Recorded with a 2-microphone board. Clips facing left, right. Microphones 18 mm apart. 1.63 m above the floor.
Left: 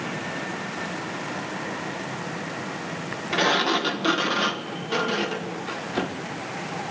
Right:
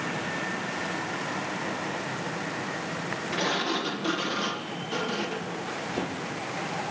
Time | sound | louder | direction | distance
3.3 | a sliding door | left 7 dB | 40° left (ahead or behind) | 2.0 m